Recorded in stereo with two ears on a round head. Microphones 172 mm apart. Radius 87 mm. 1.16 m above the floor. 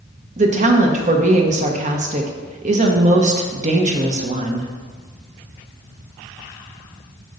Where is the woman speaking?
40° right (ahead or behind), 1.1 m.